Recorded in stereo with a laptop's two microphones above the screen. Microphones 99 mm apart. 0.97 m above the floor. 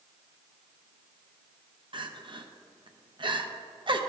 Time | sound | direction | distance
1.9 | crying | 50° right (ahead or behind) | 0.6 m